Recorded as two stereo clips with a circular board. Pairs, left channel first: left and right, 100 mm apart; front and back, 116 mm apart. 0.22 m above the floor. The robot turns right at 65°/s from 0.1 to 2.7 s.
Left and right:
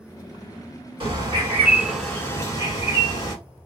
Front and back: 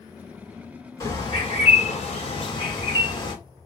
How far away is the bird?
About 1.7 m.